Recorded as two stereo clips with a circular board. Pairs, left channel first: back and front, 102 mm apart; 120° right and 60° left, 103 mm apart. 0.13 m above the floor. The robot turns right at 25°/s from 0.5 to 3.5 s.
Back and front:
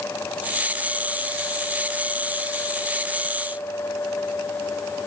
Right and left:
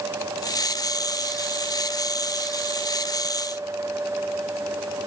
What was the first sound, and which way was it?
Only background noise.